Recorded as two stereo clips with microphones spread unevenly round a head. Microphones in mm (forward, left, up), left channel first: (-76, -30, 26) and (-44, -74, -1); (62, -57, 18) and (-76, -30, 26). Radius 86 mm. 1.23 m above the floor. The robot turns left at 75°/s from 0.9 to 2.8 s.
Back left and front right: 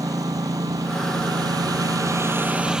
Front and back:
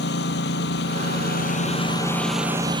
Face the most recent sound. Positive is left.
turn(degrees=-135)